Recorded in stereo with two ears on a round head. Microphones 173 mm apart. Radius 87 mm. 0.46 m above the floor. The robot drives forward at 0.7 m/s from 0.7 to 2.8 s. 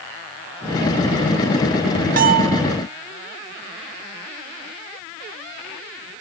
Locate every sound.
2.2 s a bell: 45° right (ahead or behind), 1.0 m; by 2.6 s 55° right (ahead or behind), 0.8 m